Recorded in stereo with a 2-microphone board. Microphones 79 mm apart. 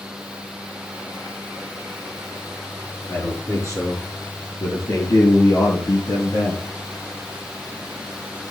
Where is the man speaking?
45° left (ahead or behind), 7 m; by 6.7 s 60° left (ahead or behind), 5 m.